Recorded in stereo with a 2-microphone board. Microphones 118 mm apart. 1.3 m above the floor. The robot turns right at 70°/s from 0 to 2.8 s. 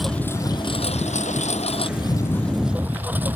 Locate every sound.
0.0 s a lawn mower: straight ahead; by 3.4 s 165° right